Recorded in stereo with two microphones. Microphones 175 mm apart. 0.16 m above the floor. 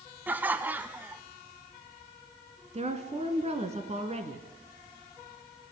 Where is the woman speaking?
40° right (ahead or behind), 2 m.